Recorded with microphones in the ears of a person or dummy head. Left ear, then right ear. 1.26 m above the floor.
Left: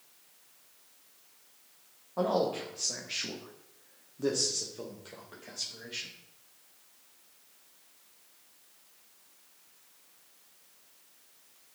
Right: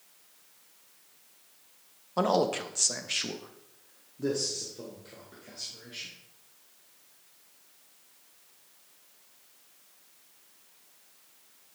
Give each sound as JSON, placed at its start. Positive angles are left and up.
{"t": 2.2, "sound": "a man speaking", "side_deg": -65, "distance_m": 0.9}